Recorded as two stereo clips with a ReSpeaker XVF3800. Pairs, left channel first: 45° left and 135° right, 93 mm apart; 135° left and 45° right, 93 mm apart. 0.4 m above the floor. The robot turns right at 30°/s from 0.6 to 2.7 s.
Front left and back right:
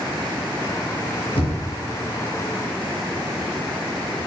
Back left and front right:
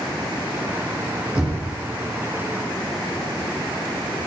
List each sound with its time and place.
1.4 s knocking: 35° left, 5 m; by 1.7 s 45° left, 5 m